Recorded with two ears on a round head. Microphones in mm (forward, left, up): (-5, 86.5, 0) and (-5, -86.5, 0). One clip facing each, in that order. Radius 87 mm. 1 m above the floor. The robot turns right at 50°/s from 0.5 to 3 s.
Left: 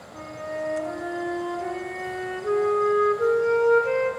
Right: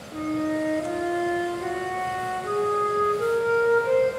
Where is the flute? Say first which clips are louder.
Right 8 dB; 70° right, 4 m; by 4.1 s 55° left, 4 m.